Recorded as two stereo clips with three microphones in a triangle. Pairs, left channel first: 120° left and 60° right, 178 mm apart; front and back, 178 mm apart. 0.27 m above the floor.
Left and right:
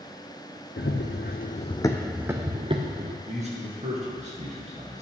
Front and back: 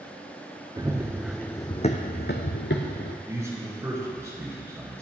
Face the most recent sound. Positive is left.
turn(degrees=-105)